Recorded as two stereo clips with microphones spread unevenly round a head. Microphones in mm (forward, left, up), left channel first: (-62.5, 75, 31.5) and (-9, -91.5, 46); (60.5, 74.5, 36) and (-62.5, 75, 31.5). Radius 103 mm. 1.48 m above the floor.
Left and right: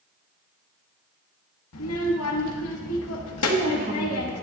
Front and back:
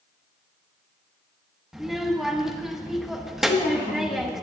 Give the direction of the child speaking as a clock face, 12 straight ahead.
9 o'clock.